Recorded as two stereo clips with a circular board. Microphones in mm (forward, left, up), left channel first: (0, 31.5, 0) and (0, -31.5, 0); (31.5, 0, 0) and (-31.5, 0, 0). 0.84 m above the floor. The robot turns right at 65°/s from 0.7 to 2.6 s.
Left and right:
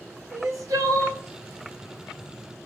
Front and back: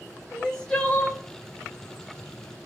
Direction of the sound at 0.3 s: 75° right.